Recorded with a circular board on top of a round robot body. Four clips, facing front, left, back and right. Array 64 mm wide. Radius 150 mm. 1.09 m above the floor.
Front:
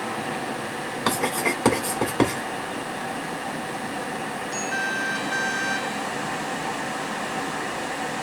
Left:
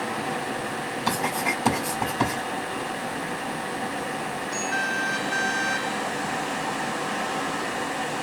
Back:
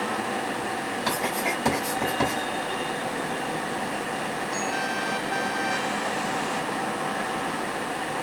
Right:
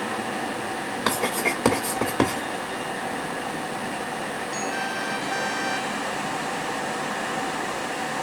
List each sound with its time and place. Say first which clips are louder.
1.1 s writing: right 1 dB, front 4 dB; 45° right, 2.5 m